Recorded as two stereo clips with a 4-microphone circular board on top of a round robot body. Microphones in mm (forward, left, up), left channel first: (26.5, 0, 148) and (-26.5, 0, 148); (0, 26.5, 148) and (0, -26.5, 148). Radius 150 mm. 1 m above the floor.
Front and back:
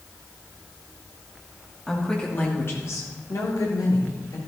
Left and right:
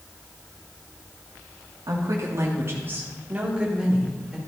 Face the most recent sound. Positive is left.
turn(degrees=-5)